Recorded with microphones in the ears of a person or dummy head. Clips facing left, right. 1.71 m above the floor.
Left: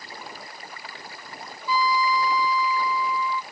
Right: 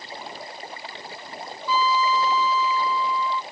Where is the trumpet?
15° left (ahead or behind).